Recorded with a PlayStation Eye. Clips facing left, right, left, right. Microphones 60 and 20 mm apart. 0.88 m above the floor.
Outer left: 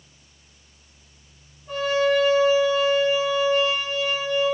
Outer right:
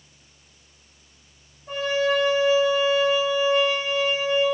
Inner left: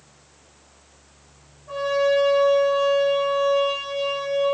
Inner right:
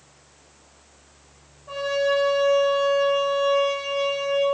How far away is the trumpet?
About 4.5 m.